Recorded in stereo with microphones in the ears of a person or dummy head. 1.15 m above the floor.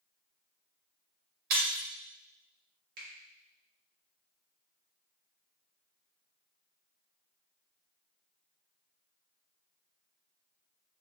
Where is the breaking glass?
55° right (ahead or behind), 0.9 m.